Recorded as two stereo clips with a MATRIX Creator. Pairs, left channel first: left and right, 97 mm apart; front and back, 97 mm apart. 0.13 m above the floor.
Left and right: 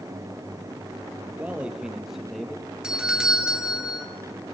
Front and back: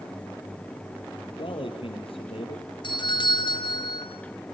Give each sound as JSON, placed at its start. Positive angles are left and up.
{"t": 1.4, "sound": "a man speaking", "azimuth_deg": -15, "distance_m": 4.0}
{"t": 2.8, "sound": "a doorbell", "azimuth_deg": -10, "distance_m": 3.0}